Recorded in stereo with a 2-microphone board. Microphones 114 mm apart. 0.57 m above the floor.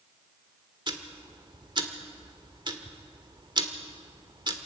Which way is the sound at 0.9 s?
40° right (ahead or behind).